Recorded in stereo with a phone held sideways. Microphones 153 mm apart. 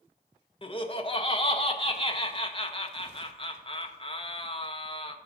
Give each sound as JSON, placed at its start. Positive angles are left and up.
{"t": 0.6, "sound": "laughter", "side_deg": 35, "distance_m": 1.3}